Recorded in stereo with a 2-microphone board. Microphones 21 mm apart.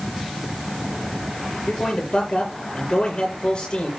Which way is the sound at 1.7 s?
55° left (ahead or behind).